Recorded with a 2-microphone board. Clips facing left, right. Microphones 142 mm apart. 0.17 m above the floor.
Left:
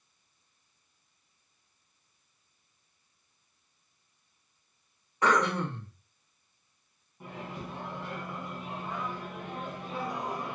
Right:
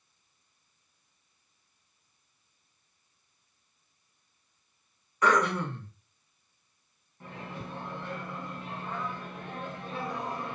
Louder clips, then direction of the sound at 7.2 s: Left 1 dB; 10° left (ahead or behind).